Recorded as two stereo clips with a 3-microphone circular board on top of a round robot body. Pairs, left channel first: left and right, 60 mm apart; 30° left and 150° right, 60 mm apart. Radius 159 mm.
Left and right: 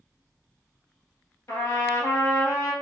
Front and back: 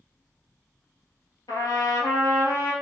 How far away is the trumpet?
About 1.5 m.